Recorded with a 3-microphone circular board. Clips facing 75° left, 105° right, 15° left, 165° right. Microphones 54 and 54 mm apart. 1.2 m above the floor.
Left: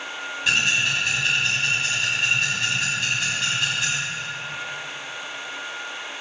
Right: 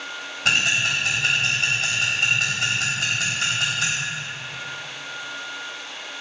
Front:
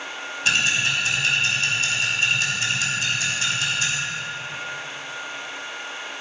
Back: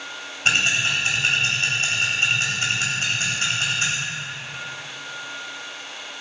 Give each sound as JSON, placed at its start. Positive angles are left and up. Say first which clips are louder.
{"t": 0.5, "sound": "ticking", "louder": "right 1 dB, back 1 dB", "azimuth_deg": -110, "distance_m": 4.5}